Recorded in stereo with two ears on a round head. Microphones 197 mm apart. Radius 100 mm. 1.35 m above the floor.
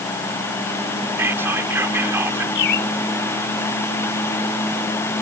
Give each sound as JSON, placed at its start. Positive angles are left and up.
{"t": 1.2, "sound": "whispering", "side_deg": -10}
{"t": 2.5, "sound": "a bird", "side_deg": 60}